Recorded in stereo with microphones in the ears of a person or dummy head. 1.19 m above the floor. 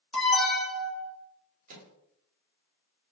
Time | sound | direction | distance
0.1 | an alarm | centre (ahead or behind) | 1.4 m
1.7 | a microwave | 45° right (ahead or behind) | 1.8 m